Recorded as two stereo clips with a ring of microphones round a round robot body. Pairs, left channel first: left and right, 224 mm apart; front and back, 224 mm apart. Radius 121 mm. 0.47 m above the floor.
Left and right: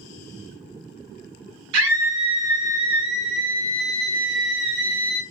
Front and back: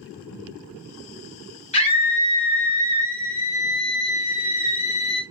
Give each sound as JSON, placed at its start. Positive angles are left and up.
{"t": 1.7, "sound": "a scream", "azimuth_deg": -55, "distance_m": 1.8}